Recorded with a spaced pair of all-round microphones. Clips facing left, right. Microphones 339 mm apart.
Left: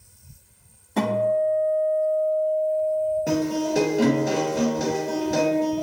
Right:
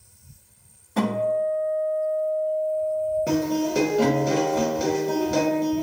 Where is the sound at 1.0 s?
5° right (ahead or behind), 1.4 m.